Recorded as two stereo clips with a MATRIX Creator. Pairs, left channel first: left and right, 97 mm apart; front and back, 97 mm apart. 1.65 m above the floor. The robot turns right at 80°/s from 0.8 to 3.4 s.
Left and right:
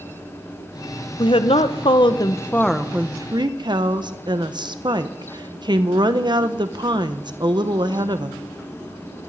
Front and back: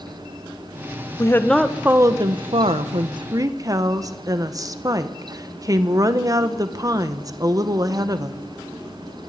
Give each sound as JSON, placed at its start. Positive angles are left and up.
{"t": 1.2, "sound": "a woman speaking", "azimuth_deg": 55, "distance_m": 1.4}